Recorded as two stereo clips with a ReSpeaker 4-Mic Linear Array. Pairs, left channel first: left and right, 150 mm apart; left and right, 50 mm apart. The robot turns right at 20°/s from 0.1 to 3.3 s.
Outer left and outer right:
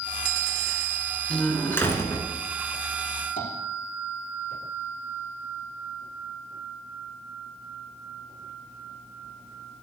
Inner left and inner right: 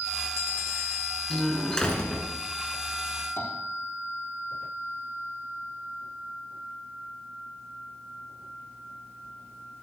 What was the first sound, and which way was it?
A door slam, 5° left (ahead or behind).